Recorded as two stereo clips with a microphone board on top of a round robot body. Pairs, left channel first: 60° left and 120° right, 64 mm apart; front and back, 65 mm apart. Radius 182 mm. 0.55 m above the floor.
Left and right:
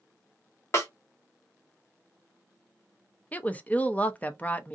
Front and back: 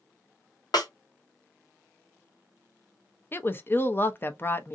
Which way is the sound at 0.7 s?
10° left.